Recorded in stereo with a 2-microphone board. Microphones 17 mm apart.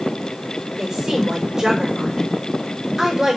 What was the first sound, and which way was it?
A woman speaking, 15° right (ahead or behind).